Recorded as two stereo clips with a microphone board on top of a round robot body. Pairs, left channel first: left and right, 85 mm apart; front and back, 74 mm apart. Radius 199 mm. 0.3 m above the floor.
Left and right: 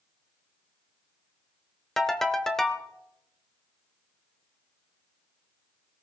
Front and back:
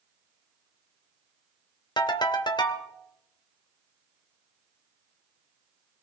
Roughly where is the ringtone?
Ahead.